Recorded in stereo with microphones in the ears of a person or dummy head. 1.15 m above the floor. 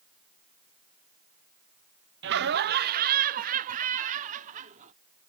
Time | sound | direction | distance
2.2 | laughter | 55° right (ahead or behind) | ?